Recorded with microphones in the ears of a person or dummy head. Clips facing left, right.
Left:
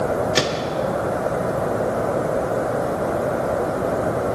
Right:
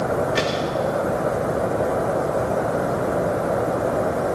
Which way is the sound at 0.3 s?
65° left (ahead or behind).